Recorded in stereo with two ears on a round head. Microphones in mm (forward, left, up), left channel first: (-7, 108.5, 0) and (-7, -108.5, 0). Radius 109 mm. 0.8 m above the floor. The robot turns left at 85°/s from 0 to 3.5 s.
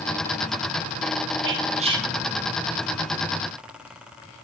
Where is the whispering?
115° right, 1.7 m; by 2.1 s 170° right, 1.7 m.